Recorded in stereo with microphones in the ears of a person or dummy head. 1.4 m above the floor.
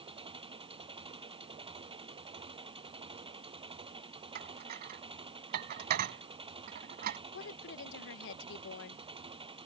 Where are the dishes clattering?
50° right (ahead or behind).